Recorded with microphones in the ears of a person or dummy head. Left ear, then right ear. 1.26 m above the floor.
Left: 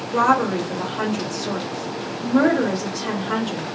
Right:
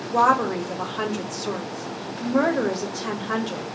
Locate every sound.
0.1 s a woman speaking: 20° right (ahead or behind), 1.7 m